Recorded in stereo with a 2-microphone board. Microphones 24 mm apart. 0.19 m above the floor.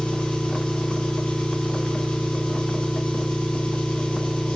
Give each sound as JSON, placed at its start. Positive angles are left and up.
{"t": 0.0, "sound": "an engine running", "side_deg": 75, "distance_m": 4.0}